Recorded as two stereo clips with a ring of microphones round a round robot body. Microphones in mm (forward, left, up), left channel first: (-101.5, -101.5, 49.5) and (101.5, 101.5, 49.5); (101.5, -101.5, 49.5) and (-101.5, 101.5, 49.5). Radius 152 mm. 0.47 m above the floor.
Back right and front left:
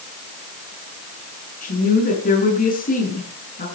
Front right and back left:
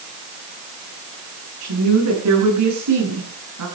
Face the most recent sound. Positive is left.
turn(degrees=165)